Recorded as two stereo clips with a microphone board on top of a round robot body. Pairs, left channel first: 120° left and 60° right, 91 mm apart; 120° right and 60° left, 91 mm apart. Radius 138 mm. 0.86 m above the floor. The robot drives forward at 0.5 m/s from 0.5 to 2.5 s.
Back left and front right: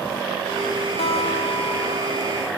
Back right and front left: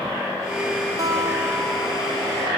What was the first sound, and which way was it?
A guitar, 115° left.